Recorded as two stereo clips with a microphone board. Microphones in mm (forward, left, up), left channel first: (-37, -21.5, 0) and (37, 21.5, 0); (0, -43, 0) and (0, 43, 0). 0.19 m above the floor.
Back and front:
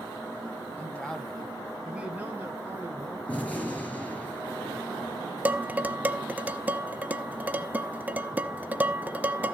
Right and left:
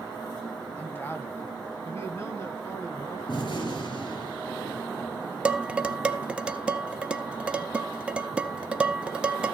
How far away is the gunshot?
About 4.5 m.